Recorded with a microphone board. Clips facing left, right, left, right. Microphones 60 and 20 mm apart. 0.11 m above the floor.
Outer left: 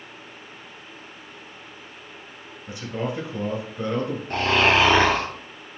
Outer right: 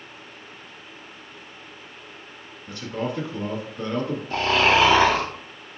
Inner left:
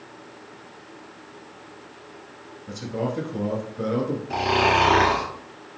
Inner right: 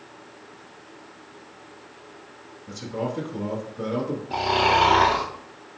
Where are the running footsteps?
No running footsteps in this recording.